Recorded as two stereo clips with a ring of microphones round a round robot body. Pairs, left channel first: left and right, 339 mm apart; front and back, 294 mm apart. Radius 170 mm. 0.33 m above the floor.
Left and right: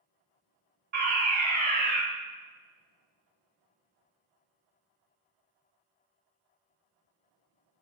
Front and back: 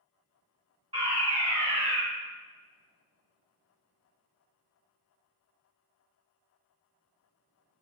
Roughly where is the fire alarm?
Behind right.